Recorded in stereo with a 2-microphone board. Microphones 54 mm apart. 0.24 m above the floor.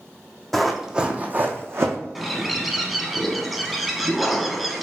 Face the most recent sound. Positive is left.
turn(degrees=0)  # may be behind; listen again after turning